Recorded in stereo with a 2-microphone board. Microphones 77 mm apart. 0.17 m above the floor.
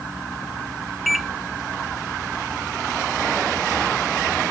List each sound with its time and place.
1.1 s a microwave: centre (ahead or behind)